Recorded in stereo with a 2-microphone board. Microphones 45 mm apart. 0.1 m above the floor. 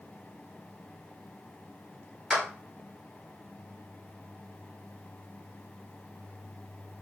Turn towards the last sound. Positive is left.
turn(degrees=-5)  # may be behind; listen again after turning